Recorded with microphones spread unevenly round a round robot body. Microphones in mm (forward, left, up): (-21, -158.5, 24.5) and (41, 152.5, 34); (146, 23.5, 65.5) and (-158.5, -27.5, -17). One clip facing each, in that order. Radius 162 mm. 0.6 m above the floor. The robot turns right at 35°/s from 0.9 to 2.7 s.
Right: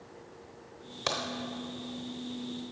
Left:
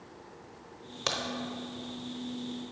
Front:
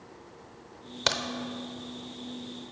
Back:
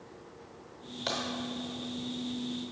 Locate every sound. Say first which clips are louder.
1.1 s a crack: right 1 dB, front 3 dB; 5° right, 0.8 m; by 1.2 s straight ahead, 0.8 m